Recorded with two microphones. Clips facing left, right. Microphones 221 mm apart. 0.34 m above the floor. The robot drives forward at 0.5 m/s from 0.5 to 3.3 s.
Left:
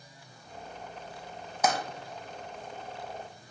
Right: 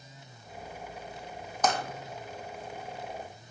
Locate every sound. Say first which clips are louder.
1.6 s tapping: even; 10° left (ahead or behind), 0.7 m